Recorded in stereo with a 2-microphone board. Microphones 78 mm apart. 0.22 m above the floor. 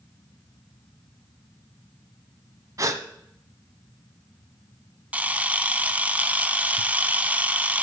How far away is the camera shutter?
About 0.6 m.